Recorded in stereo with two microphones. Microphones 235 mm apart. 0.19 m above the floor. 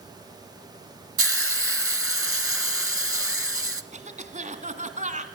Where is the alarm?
I don't hear an alarm.